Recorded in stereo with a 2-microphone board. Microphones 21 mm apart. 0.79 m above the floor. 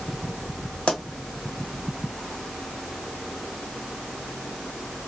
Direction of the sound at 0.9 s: 60° left (ahead or behind).